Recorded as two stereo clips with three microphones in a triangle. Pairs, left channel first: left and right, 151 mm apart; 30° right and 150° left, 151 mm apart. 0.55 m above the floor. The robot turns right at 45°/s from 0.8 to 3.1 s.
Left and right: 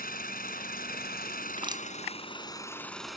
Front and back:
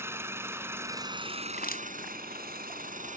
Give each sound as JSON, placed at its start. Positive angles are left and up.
{"t": 0.0, "sound": "an engine running", "azimuth_deg": 75}
{"t": 1.6, "sound": "crushing", "azimuth_deg": -35}